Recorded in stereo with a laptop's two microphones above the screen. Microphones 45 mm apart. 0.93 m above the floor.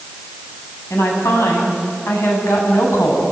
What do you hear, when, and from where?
0.9 s a woman speaking: 75° left (ahead or behind), 8 m